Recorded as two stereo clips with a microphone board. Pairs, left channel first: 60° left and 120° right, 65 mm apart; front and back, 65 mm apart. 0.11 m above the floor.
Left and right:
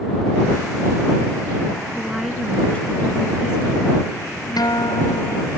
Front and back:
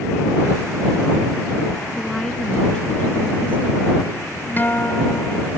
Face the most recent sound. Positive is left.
turn(degrees=60)